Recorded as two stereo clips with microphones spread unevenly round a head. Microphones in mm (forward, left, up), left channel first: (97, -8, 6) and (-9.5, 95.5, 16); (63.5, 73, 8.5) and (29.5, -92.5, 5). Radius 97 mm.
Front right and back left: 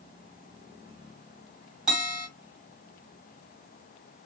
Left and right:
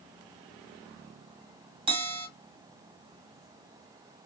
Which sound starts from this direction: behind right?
A bell, at 1.9 s.